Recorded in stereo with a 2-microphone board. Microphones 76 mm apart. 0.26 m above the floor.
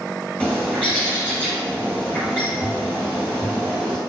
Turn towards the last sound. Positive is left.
turn(degrees=15)  # may be behind; listen again after turning